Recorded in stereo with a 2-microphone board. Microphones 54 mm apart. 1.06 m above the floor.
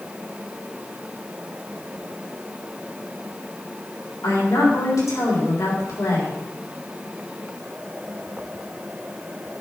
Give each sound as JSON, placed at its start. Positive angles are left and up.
{"t": 4.2, "sound": "a woman speaking", "side_deg": 85, "distance_m": 3.5}